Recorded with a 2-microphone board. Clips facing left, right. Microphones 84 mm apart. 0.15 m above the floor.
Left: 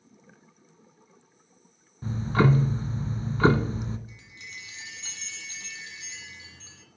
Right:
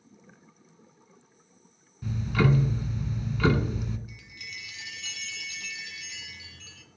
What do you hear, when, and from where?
2.0 s ticking: 35° left (ahead or behind), 0.8 m
4.1 s a chime: 30° left (ahead or behind), 1.5 m